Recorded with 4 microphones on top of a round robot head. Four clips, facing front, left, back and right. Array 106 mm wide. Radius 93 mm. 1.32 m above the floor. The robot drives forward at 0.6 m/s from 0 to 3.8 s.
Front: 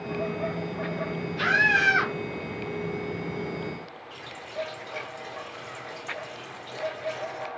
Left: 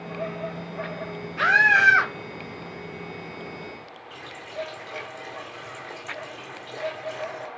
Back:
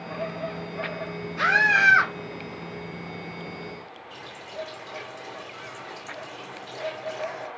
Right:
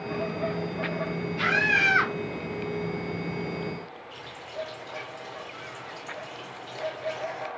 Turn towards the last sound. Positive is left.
turn(degrees=120)